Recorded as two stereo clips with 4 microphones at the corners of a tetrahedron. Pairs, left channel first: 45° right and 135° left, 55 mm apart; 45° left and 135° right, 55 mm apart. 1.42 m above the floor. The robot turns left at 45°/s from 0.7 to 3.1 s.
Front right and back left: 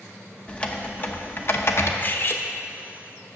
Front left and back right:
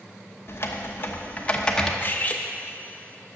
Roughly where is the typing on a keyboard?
Ahead.